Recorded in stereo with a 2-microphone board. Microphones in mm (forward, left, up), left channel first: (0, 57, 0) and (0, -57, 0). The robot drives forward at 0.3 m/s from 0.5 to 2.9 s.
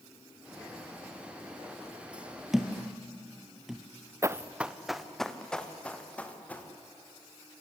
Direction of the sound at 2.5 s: 5° right (ahead or behind).